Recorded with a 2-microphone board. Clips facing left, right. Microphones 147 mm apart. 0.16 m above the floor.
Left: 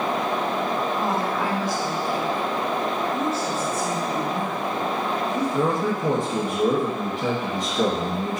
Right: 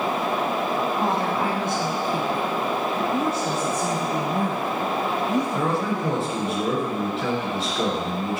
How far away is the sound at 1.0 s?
About 1.2 m.